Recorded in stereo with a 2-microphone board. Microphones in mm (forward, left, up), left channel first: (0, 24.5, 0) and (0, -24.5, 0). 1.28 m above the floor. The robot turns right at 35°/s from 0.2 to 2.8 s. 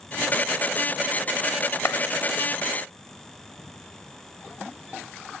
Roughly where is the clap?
Left.